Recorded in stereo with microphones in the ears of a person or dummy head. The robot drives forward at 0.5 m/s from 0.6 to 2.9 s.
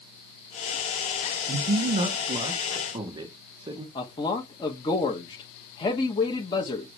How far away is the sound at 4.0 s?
About 1.4 m.